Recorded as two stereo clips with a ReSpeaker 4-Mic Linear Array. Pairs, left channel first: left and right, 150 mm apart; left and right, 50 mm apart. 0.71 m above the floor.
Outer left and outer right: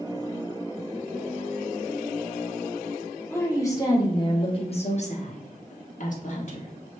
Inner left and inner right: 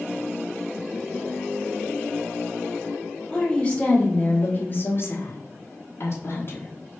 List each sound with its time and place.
3.3 s a woman speaking: 15° left (ahead or behind), 1.5 m; by 6.7 s 55° left (ahead or behind), 1.2 m